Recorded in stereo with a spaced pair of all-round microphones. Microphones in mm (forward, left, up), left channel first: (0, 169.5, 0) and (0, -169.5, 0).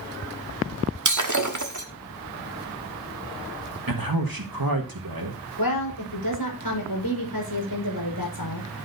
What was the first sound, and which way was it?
Breaking glass, 55° right (ahead or behind).